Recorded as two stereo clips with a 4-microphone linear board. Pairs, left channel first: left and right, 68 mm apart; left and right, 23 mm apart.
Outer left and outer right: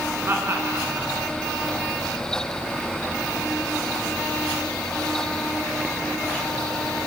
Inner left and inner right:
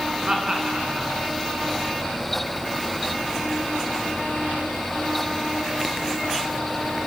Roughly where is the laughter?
Right.